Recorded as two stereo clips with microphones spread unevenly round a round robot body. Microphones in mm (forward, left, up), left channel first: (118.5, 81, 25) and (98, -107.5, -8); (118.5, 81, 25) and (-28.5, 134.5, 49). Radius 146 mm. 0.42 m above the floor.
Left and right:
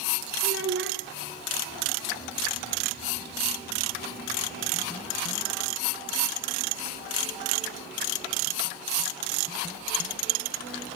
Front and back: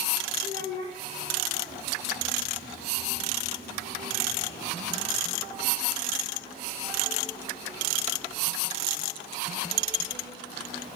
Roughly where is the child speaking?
Right.